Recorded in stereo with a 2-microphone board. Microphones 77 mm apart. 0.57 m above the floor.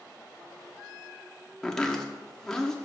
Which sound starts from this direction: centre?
Chopping, at 1.6 s.